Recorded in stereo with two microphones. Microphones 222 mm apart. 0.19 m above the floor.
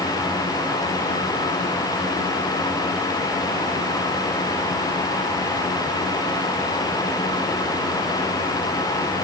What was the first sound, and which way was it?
Only background noise.